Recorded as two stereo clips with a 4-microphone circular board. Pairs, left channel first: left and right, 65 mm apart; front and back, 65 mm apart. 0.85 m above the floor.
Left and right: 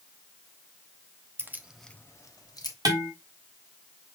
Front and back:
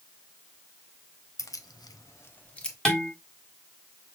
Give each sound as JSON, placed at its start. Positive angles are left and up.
{"t": 1.4, "sound": "keys jangling", "azimuth_deg": -35, "distance_m": 0.7}
{"t": 2.9, "sound": "dishes clattering", "azimuth_deg": -80, "distance_m": 1.7}